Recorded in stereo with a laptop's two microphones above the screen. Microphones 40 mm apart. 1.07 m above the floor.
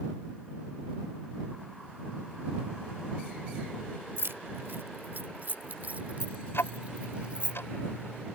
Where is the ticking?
85° left.